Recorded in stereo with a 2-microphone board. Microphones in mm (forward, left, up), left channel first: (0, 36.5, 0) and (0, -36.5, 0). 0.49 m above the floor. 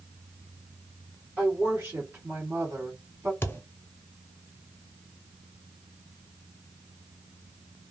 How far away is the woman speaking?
About 1.5 m.